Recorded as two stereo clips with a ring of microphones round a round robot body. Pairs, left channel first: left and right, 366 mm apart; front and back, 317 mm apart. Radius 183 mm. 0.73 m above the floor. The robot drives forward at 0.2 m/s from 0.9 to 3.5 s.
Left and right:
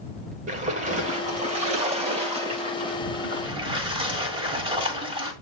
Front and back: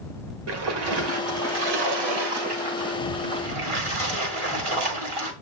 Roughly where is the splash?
Behind.